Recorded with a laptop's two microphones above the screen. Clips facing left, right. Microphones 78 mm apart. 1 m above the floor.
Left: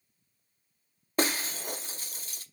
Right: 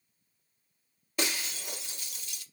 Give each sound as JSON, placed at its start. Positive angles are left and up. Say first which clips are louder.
{"t": 1.2, "sound": "breaking glass", "louder": "left 5 dB", "side_deg": 40, "distance_m": 0.5}